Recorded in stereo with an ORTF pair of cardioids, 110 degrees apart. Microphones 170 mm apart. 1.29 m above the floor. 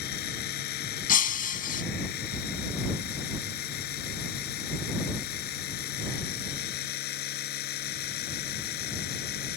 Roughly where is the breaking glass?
Ahead left.